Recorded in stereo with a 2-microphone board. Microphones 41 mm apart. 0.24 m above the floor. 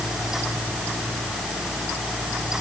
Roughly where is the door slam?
I don't hear a door slam.